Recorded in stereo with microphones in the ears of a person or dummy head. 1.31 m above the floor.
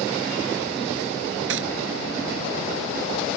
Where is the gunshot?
75° right (ahead or behind).